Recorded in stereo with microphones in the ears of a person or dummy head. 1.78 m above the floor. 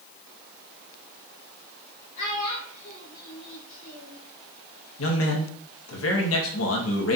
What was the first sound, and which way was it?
A child speaking, 40° left (ahead or behind).